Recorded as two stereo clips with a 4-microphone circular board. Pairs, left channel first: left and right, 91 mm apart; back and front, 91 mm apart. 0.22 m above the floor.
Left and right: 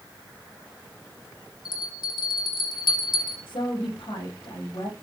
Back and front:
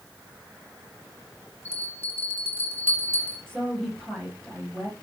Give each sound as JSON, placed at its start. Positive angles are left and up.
{"t": 1.6, "sound": "a bell", "azimuth_deg": 60, "distance_m": 3.5}
{"t": 3.5, "sound": "a woman speaking", "azimuth_deg": 95, "distance_m": 6.5}